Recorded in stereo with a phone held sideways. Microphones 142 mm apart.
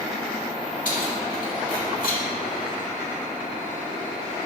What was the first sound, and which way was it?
Keys jangling, 70° left (ahead or behind).